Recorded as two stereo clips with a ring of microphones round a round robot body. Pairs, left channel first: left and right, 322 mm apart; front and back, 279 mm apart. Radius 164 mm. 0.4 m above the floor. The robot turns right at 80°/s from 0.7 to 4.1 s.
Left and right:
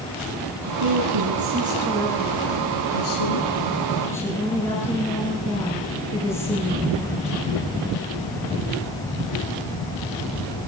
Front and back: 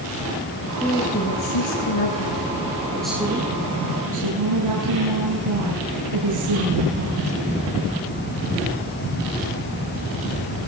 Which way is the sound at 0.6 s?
100° right.